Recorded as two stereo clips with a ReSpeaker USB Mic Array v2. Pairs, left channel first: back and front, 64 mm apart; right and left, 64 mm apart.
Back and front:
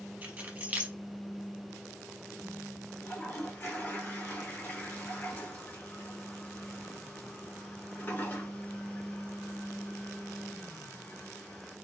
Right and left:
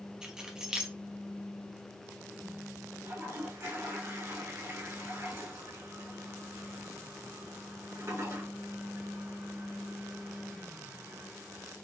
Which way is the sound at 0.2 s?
25° left.